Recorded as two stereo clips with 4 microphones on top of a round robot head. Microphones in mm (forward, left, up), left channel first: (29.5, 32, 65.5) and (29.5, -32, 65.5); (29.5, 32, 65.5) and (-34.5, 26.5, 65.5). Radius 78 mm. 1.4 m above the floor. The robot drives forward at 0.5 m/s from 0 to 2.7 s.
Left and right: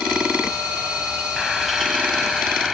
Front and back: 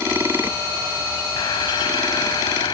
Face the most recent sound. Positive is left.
turn(degrees=0)